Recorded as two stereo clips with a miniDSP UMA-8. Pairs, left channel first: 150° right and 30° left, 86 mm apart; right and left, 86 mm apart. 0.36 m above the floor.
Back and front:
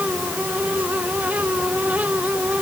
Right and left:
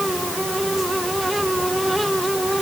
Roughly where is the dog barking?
I don't hear a dog barking.